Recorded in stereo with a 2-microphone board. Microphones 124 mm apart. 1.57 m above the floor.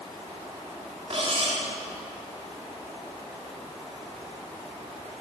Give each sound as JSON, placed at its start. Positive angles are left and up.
{"t": 1.1, "sound": "cutlery clinking", "side_deg": -55, "distance_m": 2.0}